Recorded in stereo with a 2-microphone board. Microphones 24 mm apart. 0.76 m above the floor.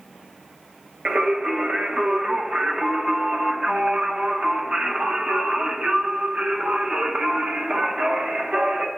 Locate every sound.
1.1 s singing: 55° right (ahead or behind), 0.7 m